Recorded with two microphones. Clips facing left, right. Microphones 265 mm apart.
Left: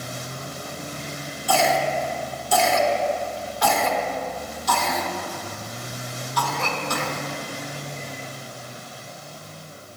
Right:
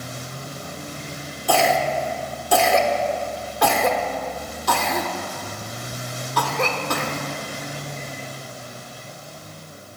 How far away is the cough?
About 1.3 m.